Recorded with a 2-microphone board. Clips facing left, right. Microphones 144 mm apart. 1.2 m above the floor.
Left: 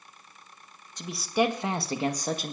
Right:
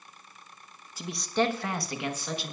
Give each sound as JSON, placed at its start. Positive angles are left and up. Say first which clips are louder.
{"t": 1.0, "sound": "a man speaking", "louder": "left 2 dB", "side_deg": -5, "distance_m": 1.3}